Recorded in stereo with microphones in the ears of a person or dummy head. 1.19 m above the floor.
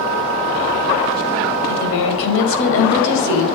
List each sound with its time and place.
1.7 s a woman speaking: 75° left (ahead or behind), 5 m; by 3.5 s 65° left (ahead or behind), 6 m